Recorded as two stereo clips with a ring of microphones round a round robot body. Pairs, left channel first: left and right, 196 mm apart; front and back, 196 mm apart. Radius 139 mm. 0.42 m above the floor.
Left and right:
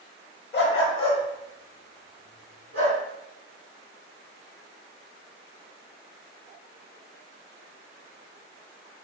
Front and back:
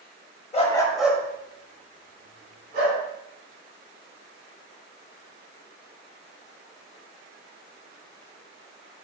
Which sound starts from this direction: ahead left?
A dog barking, at 0.5 s.